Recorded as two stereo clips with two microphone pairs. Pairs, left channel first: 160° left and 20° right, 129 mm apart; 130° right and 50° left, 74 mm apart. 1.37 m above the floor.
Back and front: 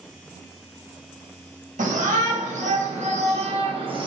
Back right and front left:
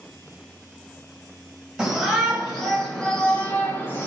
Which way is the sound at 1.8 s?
30° right.